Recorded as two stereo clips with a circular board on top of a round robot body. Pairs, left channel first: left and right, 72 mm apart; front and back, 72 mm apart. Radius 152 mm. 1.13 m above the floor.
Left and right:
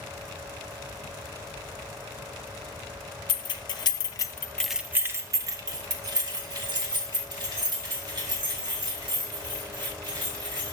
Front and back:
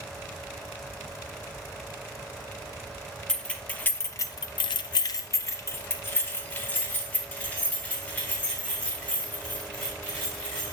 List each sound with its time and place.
3.3 s keys jangling: 80° left, 1.1 m; by 10.7 s 70° right, 5 m